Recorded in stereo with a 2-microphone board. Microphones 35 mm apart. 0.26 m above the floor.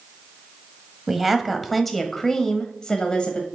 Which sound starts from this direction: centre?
A woman speaking, at 1.1 s.